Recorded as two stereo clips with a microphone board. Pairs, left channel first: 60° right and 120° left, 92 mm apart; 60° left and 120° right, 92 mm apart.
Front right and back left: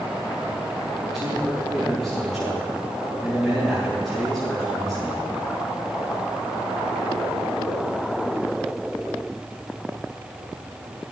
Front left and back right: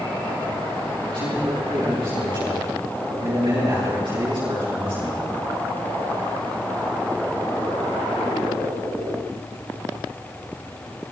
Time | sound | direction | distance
1.1 | a man speaking | 155° right | 7.5 m